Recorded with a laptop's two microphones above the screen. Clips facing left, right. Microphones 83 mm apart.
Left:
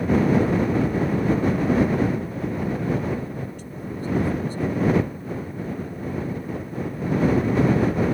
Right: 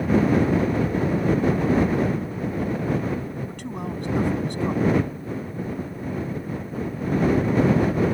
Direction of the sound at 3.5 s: 70° right (ahead or behind).